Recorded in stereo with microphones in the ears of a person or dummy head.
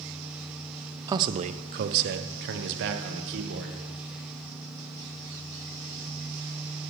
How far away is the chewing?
I don't hear chewing.